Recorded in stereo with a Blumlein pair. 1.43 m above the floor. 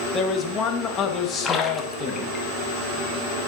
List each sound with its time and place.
0.1 s a man speaking: 25° left, 1.5 m
1.4 s a splash: 20° left, 1.3 m